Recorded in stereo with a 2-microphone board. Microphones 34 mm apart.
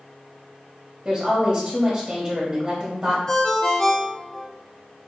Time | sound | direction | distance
1.1 | a woman speaking | 15° right (ahead or behind) | 1.1 m
3.3 | a ringtone | 20° left (ahead or behind) | 0.7 m